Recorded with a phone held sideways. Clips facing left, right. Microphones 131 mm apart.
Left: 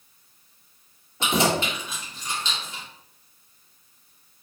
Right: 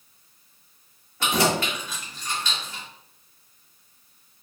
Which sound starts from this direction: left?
Keys jangling, at 1.2 s.